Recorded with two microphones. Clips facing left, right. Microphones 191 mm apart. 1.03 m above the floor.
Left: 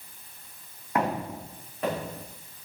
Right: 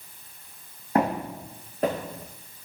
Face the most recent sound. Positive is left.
turn(degrees=-50)  # may be behind; listen again after turning